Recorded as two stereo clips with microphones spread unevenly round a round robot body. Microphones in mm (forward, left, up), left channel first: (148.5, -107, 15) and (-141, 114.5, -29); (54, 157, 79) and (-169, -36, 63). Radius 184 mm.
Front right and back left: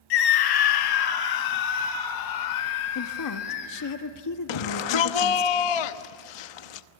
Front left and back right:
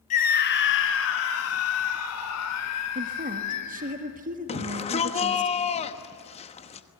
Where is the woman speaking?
80° right, 1.7 m.